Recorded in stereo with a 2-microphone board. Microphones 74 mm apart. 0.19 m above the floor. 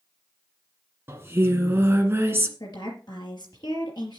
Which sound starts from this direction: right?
Singing, at 1.1 s.